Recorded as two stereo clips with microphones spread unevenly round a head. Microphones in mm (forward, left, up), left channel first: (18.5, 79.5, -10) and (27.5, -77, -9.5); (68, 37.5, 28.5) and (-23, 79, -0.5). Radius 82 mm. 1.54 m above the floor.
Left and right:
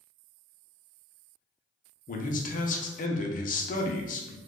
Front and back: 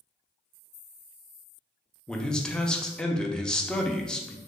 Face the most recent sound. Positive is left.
turn(degrees=55)